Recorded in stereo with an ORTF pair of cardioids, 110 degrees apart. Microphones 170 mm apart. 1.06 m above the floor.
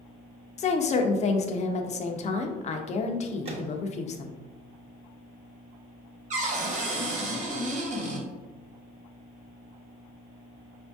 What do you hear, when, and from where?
0.6 s a woman speaking: 45° left, 0.7 m
3.5 s a microwave: 35° right, 1.1 m
6.3 s a cupboard door: 45° right, 1.3 m